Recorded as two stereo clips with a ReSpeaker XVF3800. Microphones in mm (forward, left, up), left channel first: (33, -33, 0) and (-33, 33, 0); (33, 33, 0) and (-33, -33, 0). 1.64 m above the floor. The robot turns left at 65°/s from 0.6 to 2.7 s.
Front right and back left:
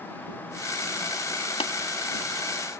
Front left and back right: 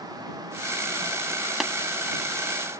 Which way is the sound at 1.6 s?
45° right.